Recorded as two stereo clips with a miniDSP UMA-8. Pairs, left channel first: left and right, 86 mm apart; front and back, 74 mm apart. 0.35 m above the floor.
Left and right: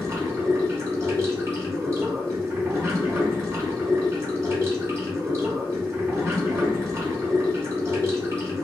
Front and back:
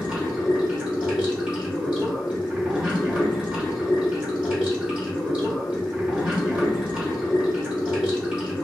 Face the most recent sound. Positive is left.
turn(degrees=-120)